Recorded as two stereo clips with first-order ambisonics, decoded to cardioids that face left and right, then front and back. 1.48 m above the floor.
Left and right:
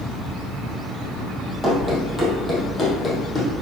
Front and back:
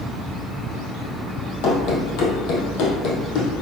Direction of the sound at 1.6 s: Straight ahead.